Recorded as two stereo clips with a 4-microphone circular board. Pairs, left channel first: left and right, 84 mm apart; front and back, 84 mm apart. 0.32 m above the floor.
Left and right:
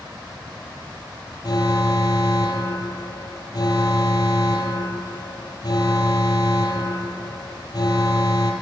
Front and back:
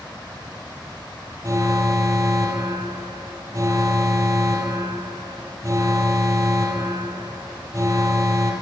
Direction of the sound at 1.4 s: 130° left.